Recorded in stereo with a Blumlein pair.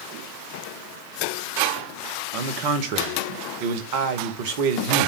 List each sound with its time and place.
2.3 s a man speaking: 45° right, 1.5 m